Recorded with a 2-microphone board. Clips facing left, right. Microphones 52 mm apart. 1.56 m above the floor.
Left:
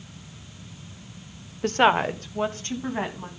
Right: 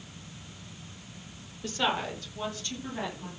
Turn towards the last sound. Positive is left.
turn(degrees=45)  # may be behind; listen again after turning